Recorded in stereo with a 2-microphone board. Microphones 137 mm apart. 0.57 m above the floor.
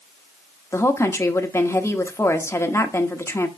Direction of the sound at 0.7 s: 20° left (ahead or behind).